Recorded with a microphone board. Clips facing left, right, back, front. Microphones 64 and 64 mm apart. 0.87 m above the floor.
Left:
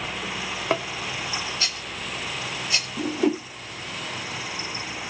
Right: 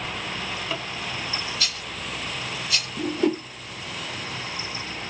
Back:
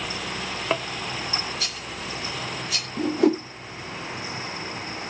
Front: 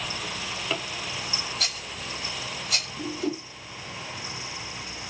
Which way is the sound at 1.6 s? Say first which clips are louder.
Even, back 2 dB; 30° left.